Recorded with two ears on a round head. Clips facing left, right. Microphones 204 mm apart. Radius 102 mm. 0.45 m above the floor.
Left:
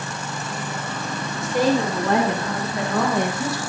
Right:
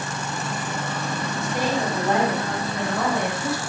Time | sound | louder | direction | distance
1.4 | a woman speaking | left 6 dB | 65° left (ahead or behind) | 9 m